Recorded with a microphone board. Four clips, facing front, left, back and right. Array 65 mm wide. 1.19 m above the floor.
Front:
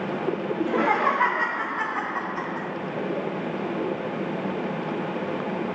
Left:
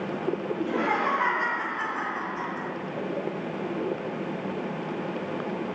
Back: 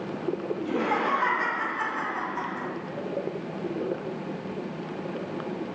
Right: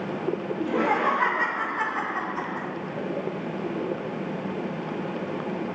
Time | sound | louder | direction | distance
0.6 | laughter | right 3 dB, front 5 dB | straight ahead | 1.1 m